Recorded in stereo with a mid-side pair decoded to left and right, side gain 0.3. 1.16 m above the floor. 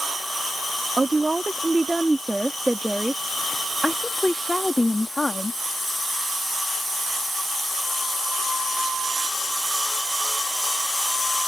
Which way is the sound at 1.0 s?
30° right.